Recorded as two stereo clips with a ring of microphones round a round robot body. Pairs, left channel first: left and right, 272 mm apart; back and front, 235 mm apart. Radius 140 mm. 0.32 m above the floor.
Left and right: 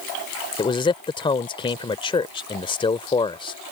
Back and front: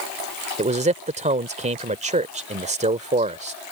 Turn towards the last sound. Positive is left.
turn(degrees=30)